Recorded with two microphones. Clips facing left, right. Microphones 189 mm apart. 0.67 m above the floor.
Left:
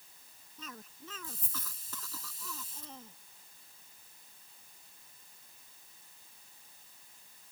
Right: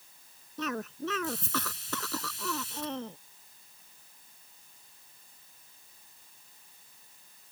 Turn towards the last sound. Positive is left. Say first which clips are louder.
# right 16 dB
turn(degrees=-75)  # may be behind; listen again after turning